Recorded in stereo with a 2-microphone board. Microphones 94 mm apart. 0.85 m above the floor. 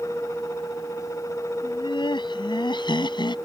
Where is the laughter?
55° left (ahead or behind).